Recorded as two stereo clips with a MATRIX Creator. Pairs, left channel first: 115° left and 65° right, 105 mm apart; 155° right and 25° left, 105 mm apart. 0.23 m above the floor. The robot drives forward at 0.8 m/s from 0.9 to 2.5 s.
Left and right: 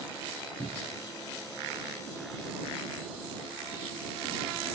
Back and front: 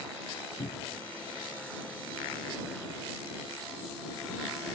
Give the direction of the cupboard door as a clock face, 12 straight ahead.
5 o'clock.